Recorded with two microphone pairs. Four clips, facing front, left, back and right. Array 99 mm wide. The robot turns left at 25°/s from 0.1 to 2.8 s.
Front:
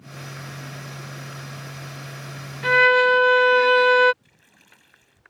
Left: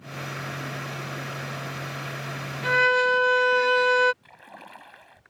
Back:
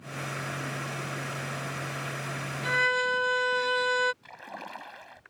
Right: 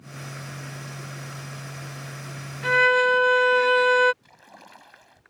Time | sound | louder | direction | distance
2.6 | a violin | right 2 dB, front 11 dB | 5° right | ?
4.2 | a splash | left 3 dB, back 18 dB | 170° left | ?